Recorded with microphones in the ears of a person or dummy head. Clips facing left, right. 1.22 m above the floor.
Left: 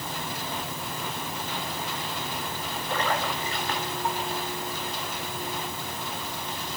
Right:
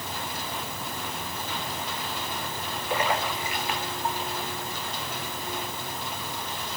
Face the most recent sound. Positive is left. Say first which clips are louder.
# right 1 dB
turn(degrees=-15)  # may be behind; listen again after turning